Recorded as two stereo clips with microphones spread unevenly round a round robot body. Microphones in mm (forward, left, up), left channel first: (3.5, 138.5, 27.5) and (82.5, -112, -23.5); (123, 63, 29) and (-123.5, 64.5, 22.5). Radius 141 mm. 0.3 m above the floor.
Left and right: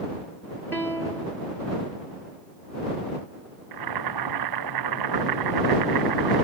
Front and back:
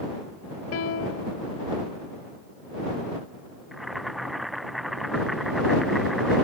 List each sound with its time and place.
0.7 s a piano: 20° left
3.7 s boiling: 90° right